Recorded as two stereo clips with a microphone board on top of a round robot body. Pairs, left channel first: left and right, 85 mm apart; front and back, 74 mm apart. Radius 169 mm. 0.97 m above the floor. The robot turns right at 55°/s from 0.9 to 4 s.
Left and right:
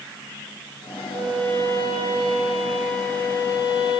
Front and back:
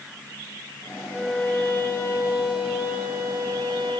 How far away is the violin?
About 2.5 m.